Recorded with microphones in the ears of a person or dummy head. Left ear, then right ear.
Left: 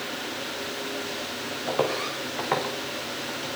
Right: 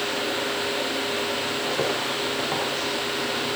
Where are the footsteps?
80° left, 8.5 m.